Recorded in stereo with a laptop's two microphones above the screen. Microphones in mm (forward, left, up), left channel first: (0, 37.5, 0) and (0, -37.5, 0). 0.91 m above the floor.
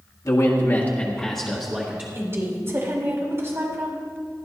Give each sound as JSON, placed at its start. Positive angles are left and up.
{"t": 0.2, "sound": "a man speaking", "side_deg": 50, "distance_m": 1.5}
{"t": 2.1, "sound": "a woman speaking", "side_deg": -35, "distance_m": 3.5}